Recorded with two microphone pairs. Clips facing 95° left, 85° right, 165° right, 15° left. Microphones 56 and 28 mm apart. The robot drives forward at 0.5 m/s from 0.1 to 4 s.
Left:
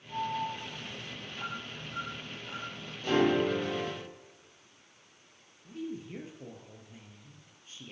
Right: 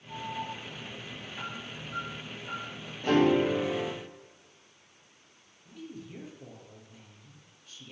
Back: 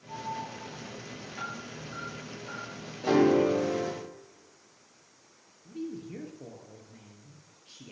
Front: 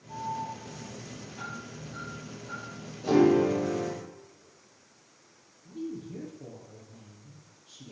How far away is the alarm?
About 6 m.